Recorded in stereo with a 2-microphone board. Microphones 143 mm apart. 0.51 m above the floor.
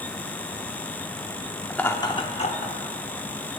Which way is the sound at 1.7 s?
5° left (ahead or behind).